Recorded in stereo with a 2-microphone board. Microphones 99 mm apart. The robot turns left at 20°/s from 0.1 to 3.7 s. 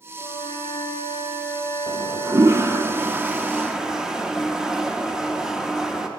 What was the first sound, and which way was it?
A flute, 90° left.